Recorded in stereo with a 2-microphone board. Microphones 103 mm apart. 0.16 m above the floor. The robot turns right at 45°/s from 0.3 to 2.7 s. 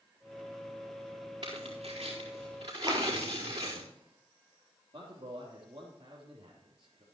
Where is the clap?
40° right (ahead or behind), 2.5 m.